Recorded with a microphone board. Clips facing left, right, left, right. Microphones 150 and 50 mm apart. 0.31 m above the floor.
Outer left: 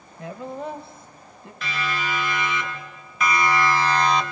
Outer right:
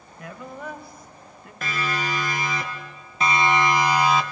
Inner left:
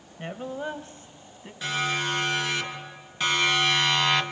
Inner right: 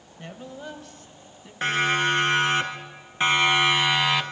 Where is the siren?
50° right (ahead or behind), 3.5 m; by 4.2 s 5° right (ahead or behind), 1.7 m.